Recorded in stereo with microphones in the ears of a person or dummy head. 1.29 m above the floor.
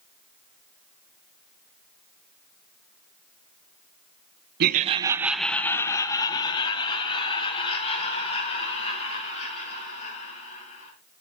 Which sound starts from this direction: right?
Laughter, at 4.6 s.